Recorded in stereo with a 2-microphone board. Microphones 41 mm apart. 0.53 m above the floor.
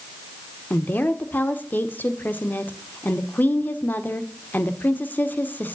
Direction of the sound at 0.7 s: 50° left (ahead or behind).